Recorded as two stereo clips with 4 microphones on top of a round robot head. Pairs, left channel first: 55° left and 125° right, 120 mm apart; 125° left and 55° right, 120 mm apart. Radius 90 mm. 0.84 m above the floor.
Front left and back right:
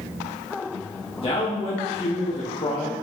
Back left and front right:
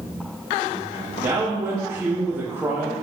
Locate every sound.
1.2 s a man speaking: 20° left, 1.4 m